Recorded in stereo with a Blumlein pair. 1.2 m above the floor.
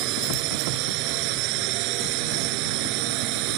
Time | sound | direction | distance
0.0 | a drone | 40° right | ?